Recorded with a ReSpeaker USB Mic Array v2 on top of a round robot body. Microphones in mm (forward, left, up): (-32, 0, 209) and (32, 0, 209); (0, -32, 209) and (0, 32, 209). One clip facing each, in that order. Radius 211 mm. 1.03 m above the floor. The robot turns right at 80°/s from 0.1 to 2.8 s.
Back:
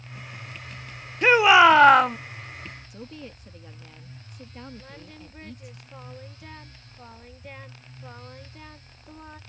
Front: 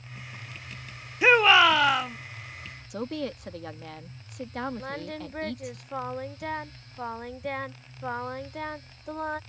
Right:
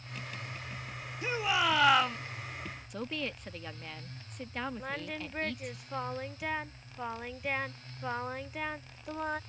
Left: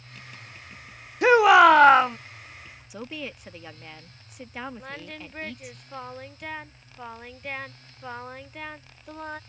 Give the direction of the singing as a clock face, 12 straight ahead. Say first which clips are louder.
Front 9 dB, right 1 dB; 12 o'clock.